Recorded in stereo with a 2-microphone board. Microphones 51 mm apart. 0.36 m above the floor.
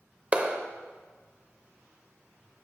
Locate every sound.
0.3 s a clap: 25° right (ahead or behind), 0.8 m